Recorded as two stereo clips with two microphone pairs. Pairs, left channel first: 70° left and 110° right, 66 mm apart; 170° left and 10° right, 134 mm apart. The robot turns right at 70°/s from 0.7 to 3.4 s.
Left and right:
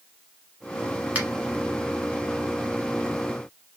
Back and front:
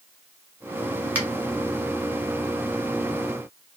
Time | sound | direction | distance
1.1 | a finger snap | 75° right | 1.2 m